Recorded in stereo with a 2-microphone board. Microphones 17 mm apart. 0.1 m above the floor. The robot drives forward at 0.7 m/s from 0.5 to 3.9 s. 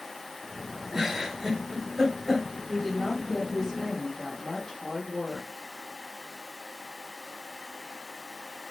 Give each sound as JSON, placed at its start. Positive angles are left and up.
{"t": 0.9, "sound": "a giggle", "side_deg": -20, "distance_m": 4.0}
{"t": 2.7, "sound": "a woman speaking", "side_deg": 25, "distance_m": 3.5}